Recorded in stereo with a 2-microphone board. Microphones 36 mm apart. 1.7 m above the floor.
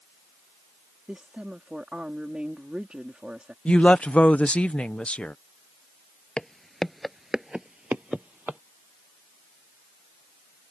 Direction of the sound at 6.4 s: 25° left (ahead or behind).